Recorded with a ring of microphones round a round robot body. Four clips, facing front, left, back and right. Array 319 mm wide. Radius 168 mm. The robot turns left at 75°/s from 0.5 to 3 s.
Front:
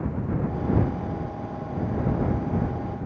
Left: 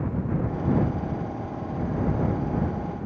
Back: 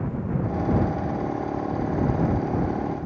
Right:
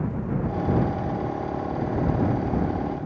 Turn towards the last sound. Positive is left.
No sound to turn to.